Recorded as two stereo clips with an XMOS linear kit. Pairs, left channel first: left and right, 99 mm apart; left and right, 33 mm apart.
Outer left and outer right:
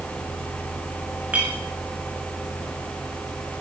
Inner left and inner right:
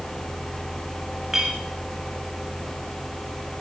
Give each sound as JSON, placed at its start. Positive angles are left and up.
{"t": 1.3, "sound": "a clink", "side_deg": -15, "distance_m": 7.5}